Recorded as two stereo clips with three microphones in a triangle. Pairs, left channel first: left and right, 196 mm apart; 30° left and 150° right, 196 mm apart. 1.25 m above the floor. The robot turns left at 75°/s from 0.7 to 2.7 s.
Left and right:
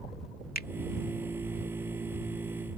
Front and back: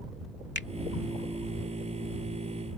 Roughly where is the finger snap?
Ahead left.